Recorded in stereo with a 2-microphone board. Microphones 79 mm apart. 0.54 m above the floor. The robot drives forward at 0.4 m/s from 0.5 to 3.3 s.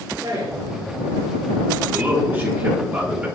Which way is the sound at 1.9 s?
25° right (ahead or behind).